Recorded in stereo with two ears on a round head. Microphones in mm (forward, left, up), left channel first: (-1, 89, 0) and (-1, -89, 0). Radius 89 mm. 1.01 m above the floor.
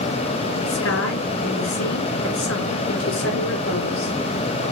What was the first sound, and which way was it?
A woman speaking, 75° left (ahead or behind).